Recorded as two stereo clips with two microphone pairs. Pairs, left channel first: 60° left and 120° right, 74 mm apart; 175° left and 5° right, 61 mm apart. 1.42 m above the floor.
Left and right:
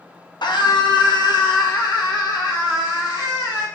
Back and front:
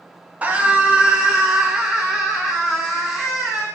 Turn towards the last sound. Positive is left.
turn(degrees=80)